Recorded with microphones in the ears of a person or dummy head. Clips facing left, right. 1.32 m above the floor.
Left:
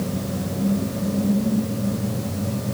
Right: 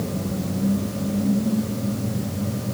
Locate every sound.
Only background noise.